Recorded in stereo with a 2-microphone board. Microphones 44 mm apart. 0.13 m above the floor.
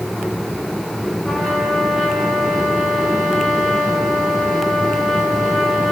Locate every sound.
1.2 s a trumpet: centre (ahead or behind), 7 m